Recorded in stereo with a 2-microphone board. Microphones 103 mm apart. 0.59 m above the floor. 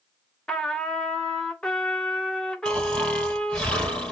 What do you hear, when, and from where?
0.5 s a trumpet: 10° left (ahead or behind), 0.9 m
2.6 s snoring: 10° left (ahead or behind), 1.9 m